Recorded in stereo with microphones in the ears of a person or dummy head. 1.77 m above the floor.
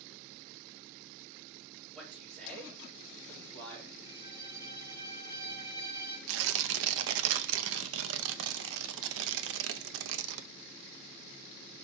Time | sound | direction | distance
1.9 | a man speaking | 5° left (ahead or behind) | 4.5 m
4.0 | a violin | 25° left (ahead or behind) | 1.7 m
6.3 | tearing paper | 70° right (ahead or behind) | 0.6 m